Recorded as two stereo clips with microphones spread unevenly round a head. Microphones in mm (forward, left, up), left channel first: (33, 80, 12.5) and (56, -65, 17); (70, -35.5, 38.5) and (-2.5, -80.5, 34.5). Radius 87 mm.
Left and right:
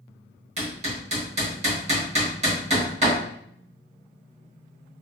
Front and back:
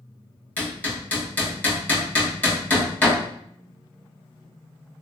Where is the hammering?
40° right, 1.5 m.